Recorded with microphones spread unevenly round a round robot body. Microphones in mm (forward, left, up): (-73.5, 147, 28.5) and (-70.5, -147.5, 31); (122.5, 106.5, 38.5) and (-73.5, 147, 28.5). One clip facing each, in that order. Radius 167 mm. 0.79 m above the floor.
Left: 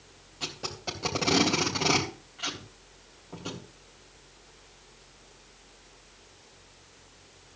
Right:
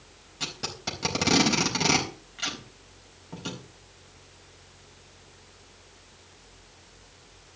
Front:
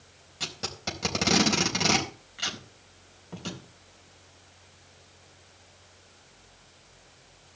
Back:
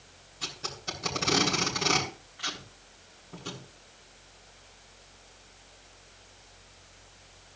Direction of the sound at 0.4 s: 25° right.